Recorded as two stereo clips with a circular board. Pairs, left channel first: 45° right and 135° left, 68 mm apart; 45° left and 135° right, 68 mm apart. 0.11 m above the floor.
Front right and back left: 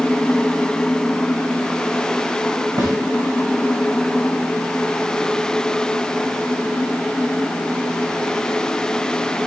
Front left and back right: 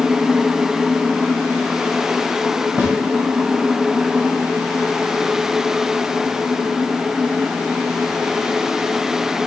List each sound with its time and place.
2.8 s a snare drum: 160° left, 6 m